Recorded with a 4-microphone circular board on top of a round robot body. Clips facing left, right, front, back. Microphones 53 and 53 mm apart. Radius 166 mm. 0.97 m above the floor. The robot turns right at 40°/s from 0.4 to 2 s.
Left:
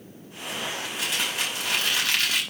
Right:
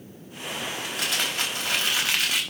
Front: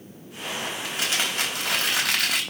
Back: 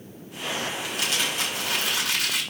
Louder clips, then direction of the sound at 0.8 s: Right 2 dB, front 2 dB; 70° right.